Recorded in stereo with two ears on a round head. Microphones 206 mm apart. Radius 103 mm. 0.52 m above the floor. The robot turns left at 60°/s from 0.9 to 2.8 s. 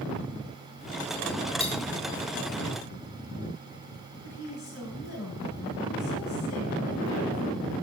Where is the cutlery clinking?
30° left (ahead or behind), 2.5 m; by 1.8 s 20° left (ahead or behind), 2.5 m.